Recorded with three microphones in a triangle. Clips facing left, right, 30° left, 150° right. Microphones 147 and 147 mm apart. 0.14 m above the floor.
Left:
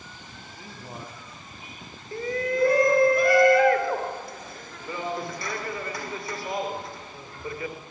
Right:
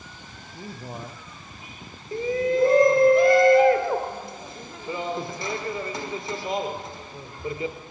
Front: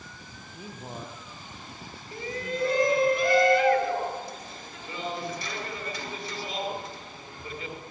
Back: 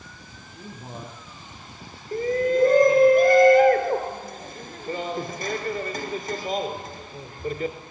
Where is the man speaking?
50° right, 4 m; by 3.1 s 70° right, 6 m.